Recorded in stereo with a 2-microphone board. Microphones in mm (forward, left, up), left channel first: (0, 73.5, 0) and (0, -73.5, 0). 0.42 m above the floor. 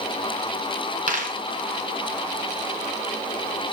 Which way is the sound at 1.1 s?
65° right (ahead or behind).